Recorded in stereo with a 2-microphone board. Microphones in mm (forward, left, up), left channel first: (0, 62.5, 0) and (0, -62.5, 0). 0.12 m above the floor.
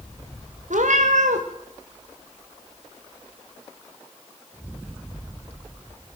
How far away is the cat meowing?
About 3.5 m.